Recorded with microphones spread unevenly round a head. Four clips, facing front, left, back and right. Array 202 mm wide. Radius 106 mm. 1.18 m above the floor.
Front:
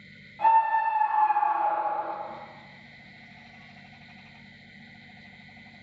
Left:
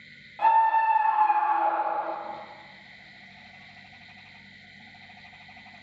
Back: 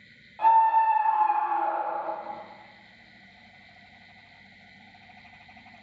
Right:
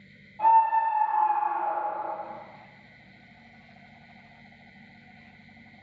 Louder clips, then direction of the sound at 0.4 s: Even, back 2 dB; 90° left.